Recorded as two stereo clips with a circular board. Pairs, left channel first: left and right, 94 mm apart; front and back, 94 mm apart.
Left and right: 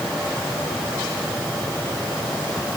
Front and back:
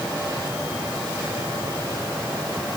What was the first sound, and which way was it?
Only background noise.